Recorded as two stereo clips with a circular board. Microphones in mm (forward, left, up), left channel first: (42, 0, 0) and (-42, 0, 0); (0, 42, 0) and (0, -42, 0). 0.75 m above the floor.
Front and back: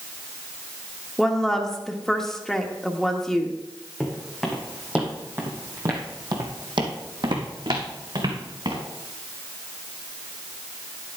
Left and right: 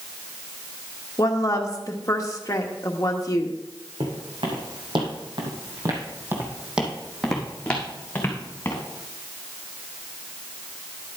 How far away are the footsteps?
About 3 m.